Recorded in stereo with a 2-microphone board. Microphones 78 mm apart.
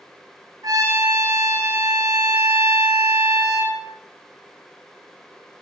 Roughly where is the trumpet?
Right.